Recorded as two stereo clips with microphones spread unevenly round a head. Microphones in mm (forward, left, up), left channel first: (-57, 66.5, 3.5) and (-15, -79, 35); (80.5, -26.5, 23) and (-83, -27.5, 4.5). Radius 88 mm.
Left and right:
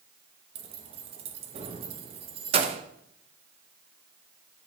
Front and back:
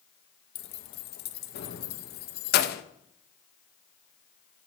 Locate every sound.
0.6 s keys jangling: 20° right, 0.7 m